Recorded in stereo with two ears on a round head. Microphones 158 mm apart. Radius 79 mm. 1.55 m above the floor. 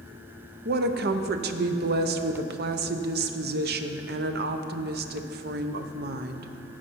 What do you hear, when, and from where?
0.7 s a woman speaking: 60° right (ahead or behind), 0.7 m